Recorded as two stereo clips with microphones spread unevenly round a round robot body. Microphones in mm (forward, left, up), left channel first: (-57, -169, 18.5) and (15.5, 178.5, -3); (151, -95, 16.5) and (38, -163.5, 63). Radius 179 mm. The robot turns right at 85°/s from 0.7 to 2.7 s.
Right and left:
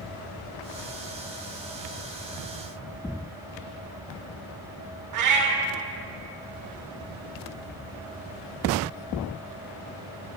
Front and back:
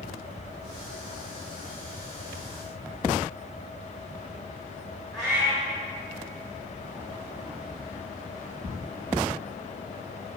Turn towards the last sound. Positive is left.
turn(degrees=120)